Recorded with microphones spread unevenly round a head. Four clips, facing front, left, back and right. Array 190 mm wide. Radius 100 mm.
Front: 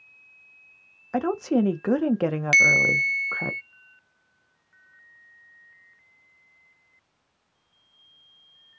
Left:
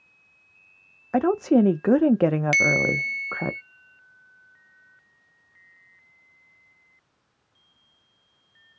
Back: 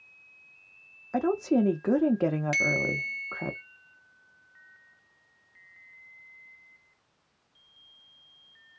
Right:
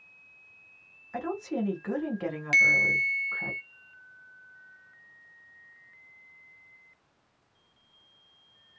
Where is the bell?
30° left, 0.5 m.